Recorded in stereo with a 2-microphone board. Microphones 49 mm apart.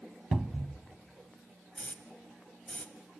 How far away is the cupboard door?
About 0.6 m.